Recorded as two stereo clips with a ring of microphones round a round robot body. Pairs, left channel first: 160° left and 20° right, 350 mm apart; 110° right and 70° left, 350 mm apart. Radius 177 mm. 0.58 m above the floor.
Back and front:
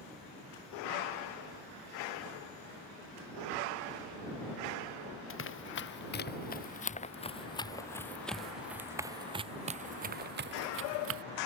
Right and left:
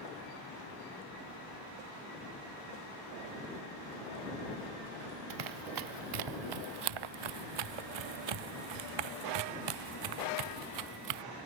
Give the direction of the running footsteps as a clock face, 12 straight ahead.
9 o'clock.